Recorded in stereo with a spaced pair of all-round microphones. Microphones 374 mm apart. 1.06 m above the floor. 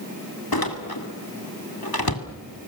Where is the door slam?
70° left (ahead or behind), 2.5 m.